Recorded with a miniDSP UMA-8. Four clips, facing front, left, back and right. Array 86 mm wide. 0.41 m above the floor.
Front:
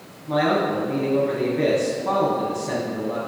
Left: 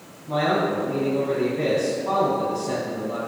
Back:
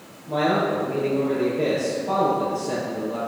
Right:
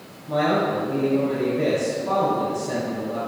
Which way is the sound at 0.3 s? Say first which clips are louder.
Right 1 dB, front 1 dB; 20° left.